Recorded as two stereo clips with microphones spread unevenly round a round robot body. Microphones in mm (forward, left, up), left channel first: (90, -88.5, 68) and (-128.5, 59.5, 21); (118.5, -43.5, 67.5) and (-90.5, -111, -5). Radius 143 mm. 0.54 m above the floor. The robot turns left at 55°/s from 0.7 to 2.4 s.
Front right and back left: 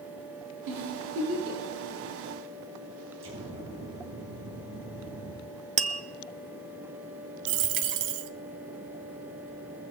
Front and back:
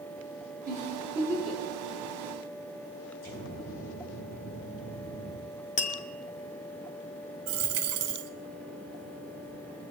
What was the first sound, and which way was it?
A giggle, 140° left.